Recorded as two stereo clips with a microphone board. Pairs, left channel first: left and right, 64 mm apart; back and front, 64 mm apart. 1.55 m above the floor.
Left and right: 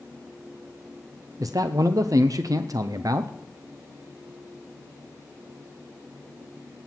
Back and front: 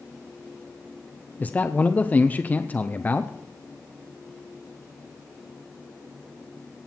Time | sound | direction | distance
1.4 | a man speaking | 115° right | 0.5 m